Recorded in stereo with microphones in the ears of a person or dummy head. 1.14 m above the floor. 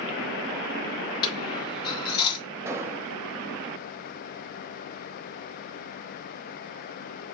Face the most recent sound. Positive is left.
turn(degrees=-10)  # may be behind; listen again after turning